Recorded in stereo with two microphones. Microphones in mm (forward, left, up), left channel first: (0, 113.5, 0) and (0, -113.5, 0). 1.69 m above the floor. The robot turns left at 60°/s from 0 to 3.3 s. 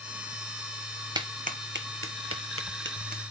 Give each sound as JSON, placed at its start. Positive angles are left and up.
{"t": 1.1, "sound": "a clap", "side_deg": -20, "distance_m": 1.0}